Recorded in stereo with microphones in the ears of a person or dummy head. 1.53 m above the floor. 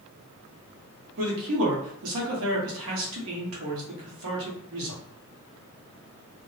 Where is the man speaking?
75° right (ahead or behind), 1.1 m.